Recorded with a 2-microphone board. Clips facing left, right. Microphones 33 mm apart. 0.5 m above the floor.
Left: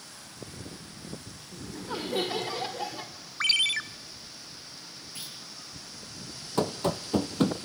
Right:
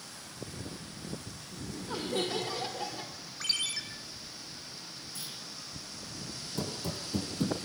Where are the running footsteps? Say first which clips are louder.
Left 10 dB; 60° left (ahead or behind), 0.9 m.